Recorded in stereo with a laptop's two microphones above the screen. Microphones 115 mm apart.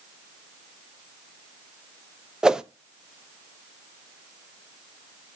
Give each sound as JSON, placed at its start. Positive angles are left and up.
{"t": 2.4, "sound": "a whoosh", "side_deg": -5, "distance_m": 0.6}